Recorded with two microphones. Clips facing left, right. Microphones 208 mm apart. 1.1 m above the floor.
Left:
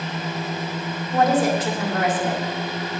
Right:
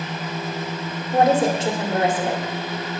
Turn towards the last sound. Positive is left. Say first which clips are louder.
# right 1 dB
turn(degrees=-25)  # may be behind; listen again after turning